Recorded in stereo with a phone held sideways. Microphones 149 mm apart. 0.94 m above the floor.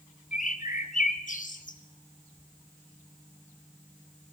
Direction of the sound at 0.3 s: 60° left (ahead or behind).